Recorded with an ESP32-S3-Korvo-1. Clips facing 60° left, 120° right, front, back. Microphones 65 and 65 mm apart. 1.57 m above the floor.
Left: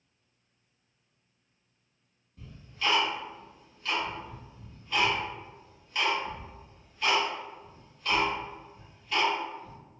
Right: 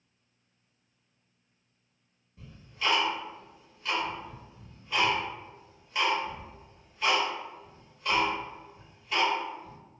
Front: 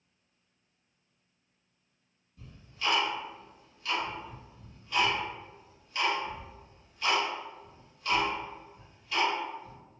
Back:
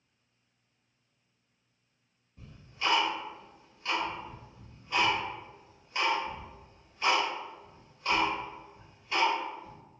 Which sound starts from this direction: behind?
Ticking, at 2.4 s.